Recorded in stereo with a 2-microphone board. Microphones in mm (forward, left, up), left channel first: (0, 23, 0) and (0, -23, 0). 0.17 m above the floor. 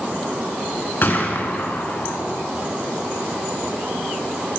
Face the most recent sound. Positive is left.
turn(degrees=45)  # may be behind; listen again after turning